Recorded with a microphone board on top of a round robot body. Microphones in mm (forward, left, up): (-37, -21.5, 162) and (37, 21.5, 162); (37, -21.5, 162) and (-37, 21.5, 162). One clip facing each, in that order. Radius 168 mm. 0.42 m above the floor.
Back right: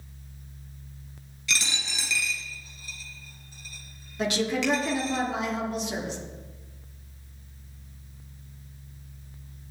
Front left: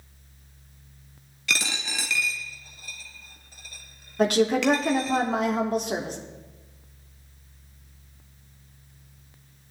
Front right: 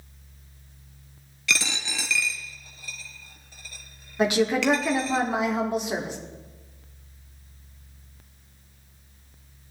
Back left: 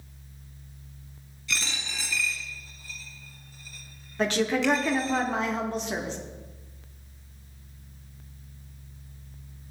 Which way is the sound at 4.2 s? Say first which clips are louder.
Front left 6 dB, front right 3 dB; 45° left.